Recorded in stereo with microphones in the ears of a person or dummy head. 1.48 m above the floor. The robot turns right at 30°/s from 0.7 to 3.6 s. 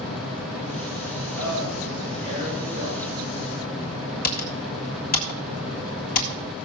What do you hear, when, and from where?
1.3 s a man speaking: 95° right, 7 m; by 3.0 s 40° right, 7 m
4.2 s typing on a keyboard: 45° left (ahead or behind), 1.9 m